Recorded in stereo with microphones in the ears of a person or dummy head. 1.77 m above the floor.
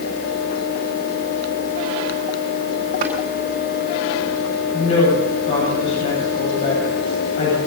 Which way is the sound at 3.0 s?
45° right (ahead or behind).